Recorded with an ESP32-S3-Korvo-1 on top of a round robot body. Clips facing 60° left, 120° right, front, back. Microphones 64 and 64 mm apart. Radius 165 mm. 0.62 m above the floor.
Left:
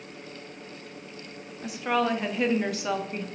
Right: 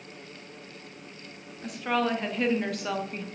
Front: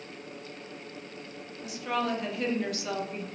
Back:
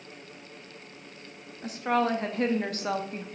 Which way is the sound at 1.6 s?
145° left.